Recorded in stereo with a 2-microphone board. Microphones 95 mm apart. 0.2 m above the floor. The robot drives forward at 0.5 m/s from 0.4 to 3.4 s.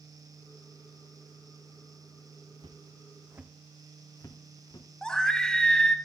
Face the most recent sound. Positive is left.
turn(degrees=5)  # may be behind; listen again after turning